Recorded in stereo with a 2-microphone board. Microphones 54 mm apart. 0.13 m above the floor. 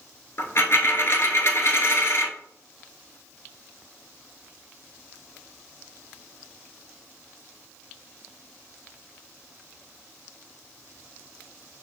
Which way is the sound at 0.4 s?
55° left (ahead or behind).